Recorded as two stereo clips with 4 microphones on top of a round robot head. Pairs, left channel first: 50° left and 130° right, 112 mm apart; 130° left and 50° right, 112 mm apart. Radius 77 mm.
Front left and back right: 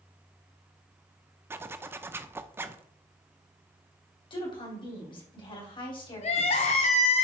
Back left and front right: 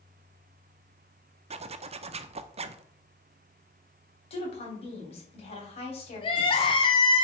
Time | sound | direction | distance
1.5 | a zipper | 60° right | 0.6 m
4.3 | a woman speaking | 95° left | 3.5 m
6.2 | crying | 85° left | 1.2 m